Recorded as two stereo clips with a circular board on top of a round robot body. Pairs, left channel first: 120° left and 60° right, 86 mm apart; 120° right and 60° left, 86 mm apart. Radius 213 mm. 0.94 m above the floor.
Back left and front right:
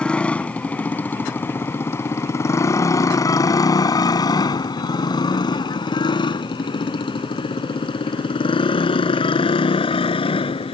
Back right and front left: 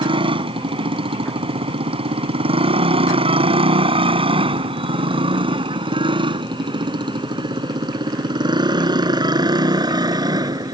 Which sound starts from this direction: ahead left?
A motorcycle, at 0.0 s.